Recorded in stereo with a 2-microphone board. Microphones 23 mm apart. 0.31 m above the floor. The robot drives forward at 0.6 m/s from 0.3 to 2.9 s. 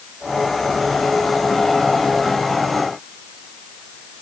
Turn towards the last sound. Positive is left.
No sound to turn to.